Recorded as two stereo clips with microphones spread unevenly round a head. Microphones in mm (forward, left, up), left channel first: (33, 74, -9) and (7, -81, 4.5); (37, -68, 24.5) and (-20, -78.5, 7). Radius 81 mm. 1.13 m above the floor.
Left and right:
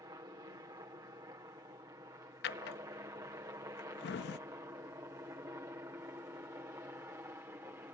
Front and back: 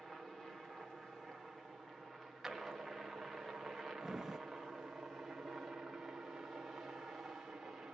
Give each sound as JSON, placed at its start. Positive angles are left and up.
{"t": 0.0, "sound": "a helicopter", "azimuth_deg": -100}
{"t": 2.4, "sound": "a drawer", "azimuth_deg": 95}